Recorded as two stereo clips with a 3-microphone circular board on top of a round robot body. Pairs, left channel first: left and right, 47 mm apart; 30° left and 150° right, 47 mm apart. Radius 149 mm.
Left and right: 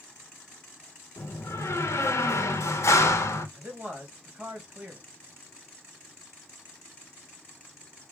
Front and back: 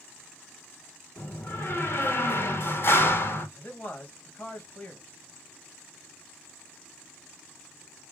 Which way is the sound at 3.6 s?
25° right.